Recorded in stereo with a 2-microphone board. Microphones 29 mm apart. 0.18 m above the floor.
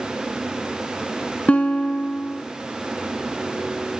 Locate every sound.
1.5 s a guitar: 45° left (ahead or behind), 0.9 m